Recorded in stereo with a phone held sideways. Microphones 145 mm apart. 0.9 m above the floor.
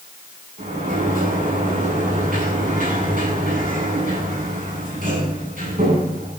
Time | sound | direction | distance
0.6 | a sliding door | 70° right (ahead or behind) | 9 m